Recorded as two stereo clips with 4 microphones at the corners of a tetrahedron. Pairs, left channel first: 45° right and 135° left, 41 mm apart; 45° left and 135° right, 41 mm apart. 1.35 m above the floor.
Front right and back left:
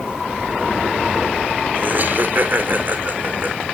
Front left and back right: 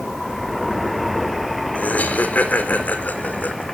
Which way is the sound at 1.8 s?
95° left.